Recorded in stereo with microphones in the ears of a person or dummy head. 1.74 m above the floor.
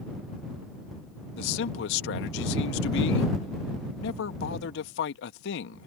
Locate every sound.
1.4 s a man speaking: 70° left (ahead or behind)